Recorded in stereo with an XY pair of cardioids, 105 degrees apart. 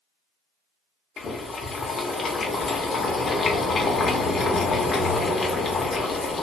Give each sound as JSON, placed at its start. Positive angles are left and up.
{"t": 1.2, "sound": "boiling", "azimuth_deg": 40, "distance_m": 0.7}